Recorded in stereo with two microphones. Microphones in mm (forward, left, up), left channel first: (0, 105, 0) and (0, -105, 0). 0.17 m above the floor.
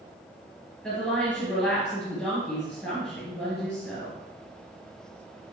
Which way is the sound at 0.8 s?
Centre (ahead or behind).